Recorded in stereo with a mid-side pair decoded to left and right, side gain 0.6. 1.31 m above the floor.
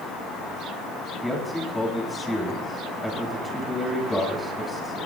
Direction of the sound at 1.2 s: 10° left.